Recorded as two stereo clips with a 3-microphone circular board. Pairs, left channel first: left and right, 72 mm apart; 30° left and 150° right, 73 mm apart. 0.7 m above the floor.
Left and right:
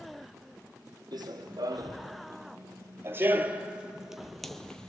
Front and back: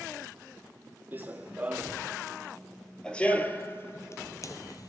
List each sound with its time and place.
1.1 s running footsteps: 90° right, 1.5 m; by 4.9 s 15° left, 1.2 m